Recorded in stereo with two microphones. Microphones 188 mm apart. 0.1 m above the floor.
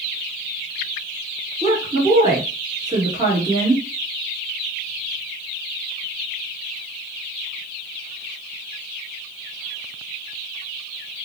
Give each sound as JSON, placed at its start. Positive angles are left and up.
{"t": 1.6, "sound": "a woman speaking", "side_deg": -25, "distance_m": 1.6}